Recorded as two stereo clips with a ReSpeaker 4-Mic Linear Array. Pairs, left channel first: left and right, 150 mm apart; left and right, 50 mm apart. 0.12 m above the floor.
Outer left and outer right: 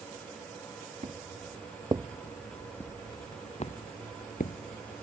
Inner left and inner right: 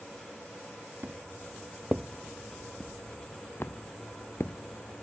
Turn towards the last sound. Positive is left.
turn(degrees=70)  # may be behind; listen again after turning